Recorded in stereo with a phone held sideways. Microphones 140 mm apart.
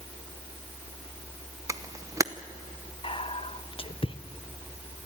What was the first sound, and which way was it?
A camera shutter, 25° right (ahead or behind).